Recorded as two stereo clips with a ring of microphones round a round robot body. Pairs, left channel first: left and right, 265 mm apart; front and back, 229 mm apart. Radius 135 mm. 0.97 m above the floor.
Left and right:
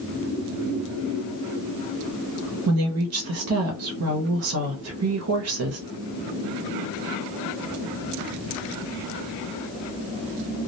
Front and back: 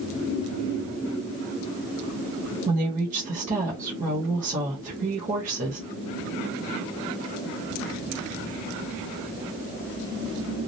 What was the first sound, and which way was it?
A woman speaking, 120° right.